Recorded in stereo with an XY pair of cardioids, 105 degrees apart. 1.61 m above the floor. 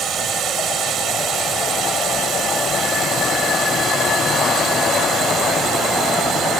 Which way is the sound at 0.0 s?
60° right.